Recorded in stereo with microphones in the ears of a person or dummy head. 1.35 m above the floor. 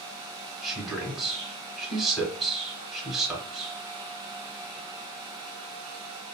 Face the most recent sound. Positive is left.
turn(degrees=-5)  # may be behind; listen again after turning